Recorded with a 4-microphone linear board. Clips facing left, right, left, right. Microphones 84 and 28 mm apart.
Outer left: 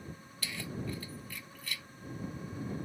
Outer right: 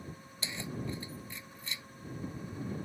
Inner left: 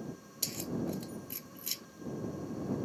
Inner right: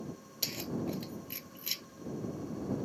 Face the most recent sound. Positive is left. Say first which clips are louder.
# even, even
turn(degrees=-25)  # may be behind; listen again after turning